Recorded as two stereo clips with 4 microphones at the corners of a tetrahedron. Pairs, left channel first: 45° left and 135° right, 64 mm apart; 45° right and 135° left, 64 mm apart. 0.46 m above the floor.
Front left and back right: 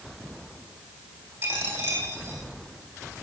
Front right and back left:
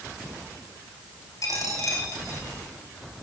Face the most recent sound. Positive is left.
turn(degrees=-80)